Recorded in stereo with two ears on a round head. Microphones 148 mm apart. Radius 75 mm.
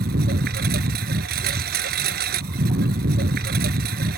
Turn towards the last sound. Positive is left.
turn(degrees=-65)  # may be behind; listen again after turning